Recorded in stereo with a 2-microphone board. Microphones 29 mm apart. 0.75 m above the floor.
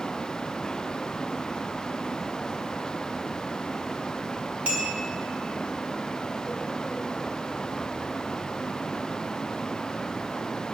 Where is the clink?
50° right (ahead or behind), 1.8 m.